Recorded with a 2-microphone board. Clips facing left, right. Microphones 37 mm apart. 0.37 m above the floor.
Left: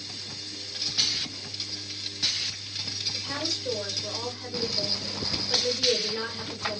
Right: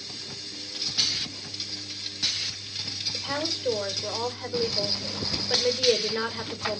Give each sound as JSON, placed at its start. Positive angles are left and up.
{"t": 3.1, "sound": "a woman speaking", "side_deg": -25, "distance_m": 1.1}